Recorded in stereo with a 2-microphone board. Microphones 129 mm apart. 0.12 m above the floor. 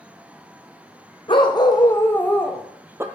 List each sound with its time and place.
1.3 s a dog barking: 40° left (ahead or behind), 2.0 m; by 3.0 s 20° right (ahead or behind), 1.4 m